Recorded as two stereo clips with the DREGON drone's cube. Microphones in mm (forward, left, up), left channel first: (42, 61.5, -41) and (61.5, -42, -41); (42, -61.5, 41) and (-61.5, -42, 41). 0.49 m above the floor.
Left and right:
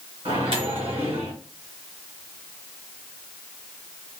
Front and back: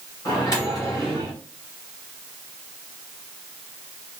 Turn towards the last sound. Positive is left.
turn(degrees=-65)